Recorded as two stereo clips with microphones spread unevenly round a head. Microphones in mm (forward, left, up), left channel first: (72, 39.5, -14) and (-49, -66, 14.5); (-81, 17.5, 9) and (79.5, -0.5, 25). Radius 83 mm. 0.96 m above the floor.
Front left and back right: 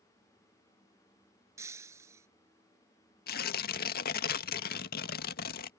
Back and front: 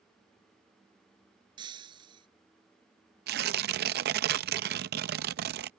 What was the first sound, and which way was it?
Breaking glass, 70° right.